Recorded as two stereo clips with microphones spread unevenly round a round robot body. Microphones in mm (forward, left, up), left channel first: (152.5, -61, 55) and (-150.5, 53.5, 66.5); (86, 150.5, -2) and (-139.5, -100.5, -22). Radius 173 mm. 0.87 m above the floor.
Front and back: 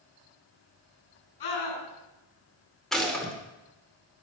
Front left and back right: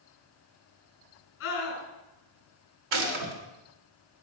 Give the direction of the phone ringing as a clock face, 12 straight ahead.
I don't hear a phone ringing.